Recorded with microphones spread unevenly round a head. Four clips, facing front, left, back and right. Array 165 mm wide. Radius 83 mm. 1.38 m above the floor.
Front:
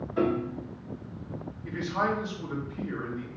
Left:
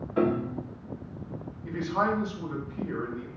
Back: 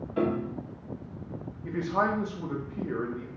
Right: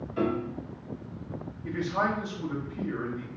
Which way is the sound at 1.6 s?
170° right.